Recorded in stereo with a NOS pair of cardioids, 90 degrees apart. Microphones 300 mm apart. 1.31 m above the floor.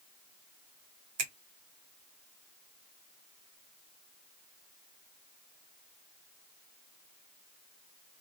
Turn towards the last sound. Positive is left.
turn(degrees=-60)